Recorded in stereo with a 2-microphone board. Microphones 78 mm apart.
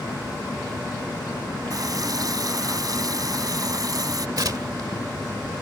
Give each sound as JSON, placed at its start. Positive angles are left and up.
{"t": 1.7, "sound": "a running tap", "side_deg": -50}
{"t": 4.4, "sound": "tearing paper", "side_deg": -55}